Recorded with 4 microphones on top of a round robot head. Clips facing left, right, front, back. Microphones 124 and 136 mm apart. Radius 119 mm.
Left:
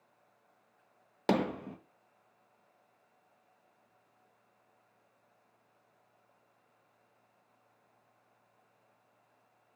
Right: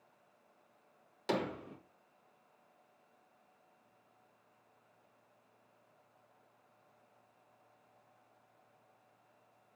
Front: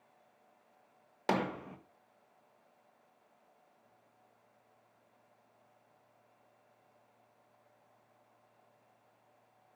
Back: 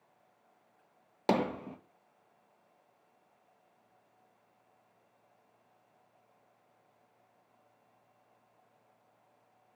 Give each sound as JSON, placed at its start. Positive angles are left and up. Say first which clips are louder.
{"t": 1.3, "sound": "hammering", "louder": "left 6 dB, back 4 dB", "azimuth_deg": 115, "distance_m": 1.8}